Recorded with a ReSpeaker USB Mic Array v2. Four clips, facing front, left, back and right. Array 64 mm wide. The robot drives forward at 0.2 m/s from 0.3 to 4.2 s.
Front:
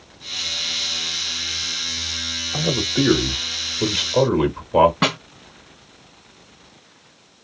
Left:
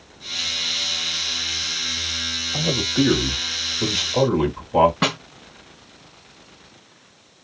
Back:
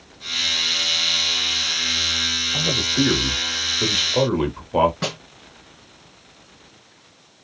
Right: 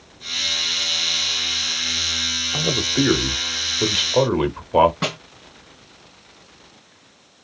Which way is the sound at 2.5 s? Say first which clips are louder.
Even, front 2 dB; 60° right.